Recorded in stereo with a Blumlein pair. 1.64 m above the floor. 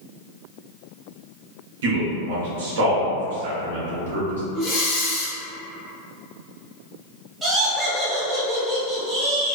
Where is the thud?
No thud in this recording.